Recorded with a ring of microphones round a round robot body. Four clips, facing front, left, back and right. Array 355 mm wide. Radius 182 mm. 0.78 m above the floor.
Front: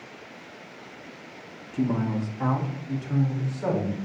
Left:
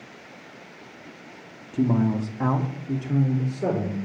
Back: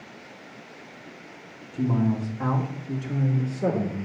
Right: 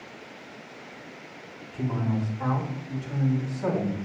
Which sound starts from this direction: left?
A man speaking, at 1.7 s.